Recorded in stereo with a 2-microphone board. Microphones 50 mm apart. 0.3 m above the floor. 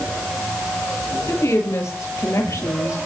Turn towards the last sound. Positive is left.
turn(degrees=75)  # may be behind; listen again after turning